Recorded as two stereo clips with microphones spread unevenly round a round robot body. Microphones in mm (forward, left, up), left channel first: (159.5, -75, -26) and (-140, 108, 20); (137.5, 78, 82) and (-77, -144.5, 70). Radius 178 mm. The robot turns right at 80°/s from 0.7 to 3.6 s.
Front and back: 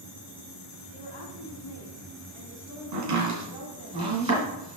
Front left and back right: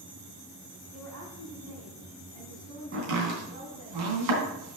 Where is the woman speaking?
50° right, 3.5 m; by 3.9 s 165° left, 3.5 m.